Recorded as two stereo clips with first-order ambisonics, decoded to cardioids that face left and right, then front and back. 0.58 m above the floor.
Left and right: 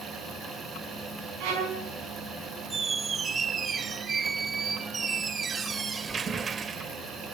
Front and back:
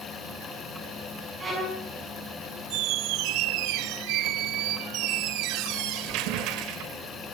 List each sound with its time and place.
1.4 s a violin: 105° right, 5 m
2.7 s a squeak: 160° right, 0.5 m